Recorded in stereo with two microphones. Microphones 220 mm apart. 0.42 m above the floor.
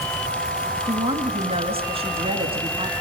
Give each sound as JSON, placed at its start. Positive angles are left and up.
{"t": 0.8, "sound": "a woman speaking", "side_deg": -25, "distance_m": 3.5}